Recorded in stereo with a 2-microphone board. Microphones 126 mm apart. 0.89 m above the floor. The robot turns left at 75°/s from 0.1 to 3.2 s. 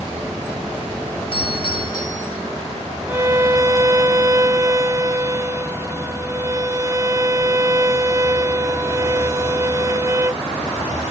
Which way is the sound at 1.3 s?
95° left.